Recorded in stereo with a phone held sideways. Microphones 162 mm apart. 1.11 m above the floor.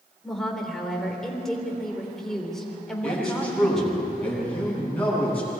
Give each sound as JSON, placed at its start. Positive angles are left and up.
{"t": 0.2, "sound": "a woman speaking", "side_deg": 0, "distance_m": 3.5}
{"t": 3.0, "sound": "a man speaking", "side_deg": 10, "distance_m": 8.5}